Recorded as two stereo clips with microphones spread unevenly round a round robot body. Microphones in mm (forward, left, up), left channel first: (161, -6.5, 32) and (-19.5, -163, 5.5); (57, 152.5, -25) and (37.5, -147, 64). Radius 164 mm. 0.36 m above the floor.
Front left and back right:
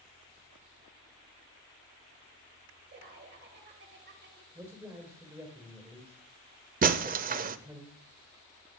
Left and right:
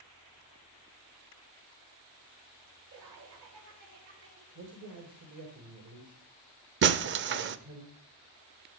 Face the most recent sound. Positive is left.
turn(degrees=-155)